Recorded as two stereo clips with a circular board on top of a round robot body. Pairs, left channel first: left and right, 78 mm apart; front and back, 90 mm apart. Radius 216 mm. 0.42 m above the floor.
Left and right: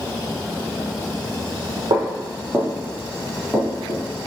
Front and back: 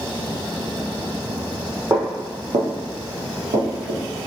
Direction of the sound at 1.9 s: 120° right.